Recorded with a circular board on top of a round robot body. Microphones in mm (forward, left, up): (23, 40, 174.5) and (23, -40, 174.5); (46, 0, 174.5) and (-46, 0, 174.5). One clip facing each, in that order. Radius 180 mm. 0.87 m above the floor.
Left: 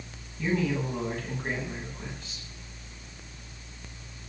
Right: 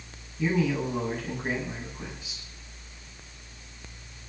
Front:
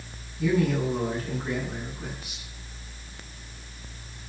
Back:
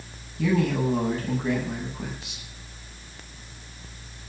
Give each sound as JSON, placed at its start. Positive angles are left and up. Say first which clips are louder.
{"t": 0.4, "sound": "a man speaking", "louder": "right 2 dB, back 1 dB", "azimuth_deg": -170, "distance_m": 9.5}